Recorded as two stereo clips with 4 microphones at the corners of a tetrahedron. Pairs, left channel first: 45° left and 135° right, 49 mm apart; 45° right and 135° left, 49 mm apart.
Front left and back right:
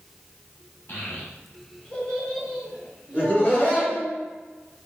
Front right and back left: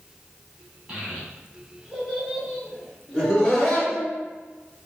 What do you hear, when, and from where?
0.9 s a child speaking: 75° left, 1.1 m; by 4.1 s 115° right, 1.0 m
3.1 s laughter: 40° left, 1.3 m